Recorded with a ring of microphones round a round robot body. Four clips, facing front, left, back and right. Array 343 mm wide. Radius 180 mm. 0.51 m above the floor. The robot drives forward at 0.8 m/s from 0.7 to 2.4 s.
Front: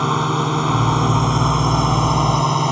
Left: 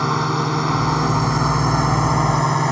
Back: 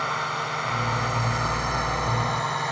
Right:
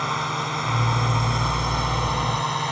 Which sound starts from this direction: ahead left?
A drone, at 0.0 s.